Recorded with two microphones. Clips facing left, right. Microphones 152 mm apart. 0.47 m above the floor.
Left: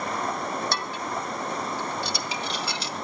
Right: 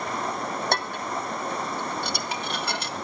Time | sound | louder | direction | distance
0.7 | dishes clattering | right 2 dB | 55° right (ahead or behind) | 2.5 m